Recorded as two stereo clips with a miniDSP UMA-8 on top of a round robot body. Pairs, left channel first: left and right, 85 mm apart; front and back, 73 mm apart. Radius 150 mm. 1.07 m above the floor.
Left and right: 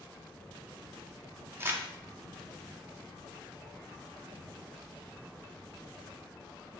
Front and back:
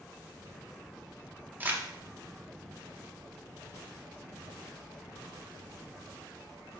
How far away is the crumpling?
About 0.8 m.